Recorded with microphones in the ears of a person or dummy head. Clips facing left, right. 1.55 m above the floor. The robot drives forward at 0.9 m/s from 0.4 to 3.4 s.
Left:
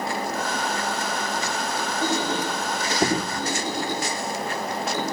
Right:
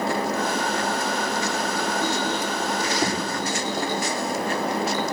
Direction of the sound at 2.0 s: 15° left (ahead or behind).